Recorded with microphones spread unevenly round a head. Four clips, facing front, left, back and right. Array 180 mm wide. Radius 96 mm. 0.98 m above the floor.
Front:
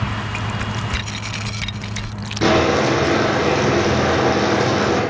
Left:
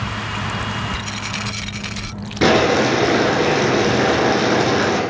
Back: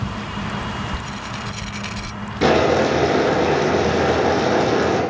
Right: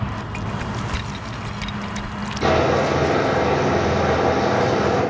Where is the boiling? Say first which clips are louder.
Left 3 dB, even; 100° left, 2.5 m.